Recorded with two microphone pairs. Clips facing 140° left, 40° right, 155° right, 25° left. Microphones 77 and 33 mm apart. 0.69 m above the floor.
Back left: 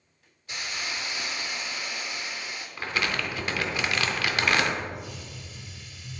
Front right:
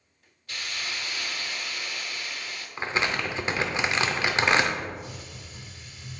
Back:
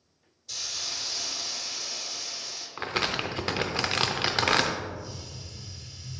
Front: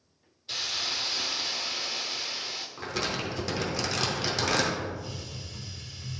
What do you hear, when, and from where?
0.5 s a hiss: 70° left, 0.6 m
2.8 s crumpling: 105° right, 0.7 m
4.8 s a hiss: 10° left, 1.1 m